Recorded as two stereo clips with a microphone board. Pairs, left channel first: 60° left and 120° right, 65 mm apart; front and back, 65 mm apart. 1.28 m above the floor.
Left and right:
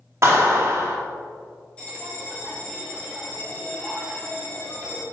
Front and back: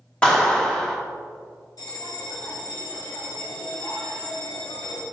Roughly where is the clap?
Right.